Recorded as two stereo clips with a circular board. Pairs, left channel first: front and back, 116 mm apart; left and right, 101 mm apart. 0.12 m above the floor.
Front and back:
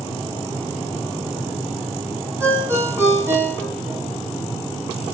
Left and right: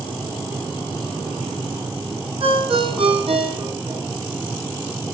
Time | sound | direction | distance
2.4 | a ringtone | 110° right | 4 m